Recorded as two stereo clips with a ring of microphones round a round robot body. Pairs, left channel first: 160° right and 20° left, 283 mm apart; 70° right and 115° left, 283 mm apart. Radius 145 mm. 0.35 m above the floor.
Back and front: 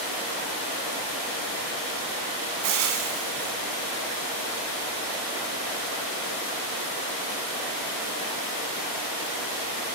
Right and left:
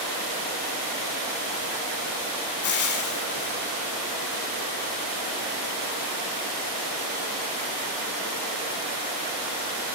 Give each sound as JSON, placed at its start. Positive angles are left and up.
{"t": 2.6, "sound": "frying", "azimuth_deg": -15, "distance_m": 1.0}